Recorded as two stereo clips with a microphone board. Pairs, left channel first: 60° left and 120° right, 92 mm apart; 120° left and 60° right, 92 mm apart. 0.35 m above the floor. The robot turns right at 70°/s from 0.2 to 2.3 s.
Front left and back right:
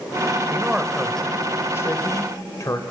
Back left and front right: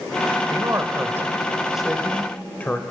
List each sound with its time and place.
0.5 s a man speaking: 65° right, 1.2 m; by 2.8 s 60° left, 1.2 m